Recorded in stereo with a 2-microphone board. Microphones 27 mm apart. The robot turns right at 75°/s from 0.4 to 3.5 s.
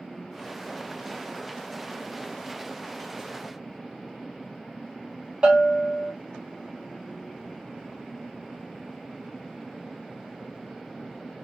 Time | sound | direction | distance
5.4 | a bell | 30° right (ahead or behind) | 1.2 m